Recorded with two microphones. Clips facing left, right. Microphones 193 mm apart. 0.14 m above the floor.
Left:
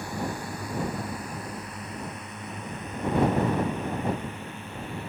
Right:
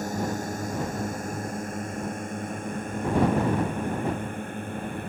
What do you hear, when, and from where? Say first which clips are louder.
0.0 s a drone: right 4 dB; 45° right (ahead or behind); by 5.1 s 50° right (ahead or behind)